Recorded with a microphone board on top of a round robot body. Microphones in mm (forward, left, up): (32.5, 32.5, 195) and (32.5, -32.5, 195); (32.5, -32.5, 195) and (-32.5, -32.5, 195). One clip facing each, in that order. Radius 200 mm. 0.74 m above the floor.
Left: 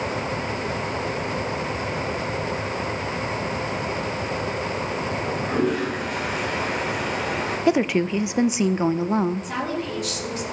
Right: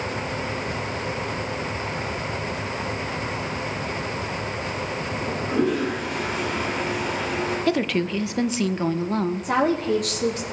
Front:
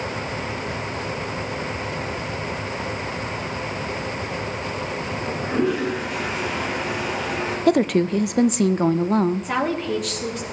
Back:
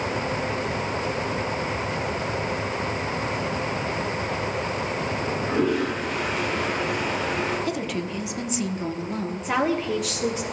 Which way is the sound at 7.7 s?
20° left.